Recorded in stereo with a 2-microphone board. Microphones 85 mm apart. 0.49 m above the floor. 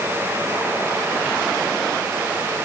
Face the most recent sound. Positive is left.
No sound to turn to.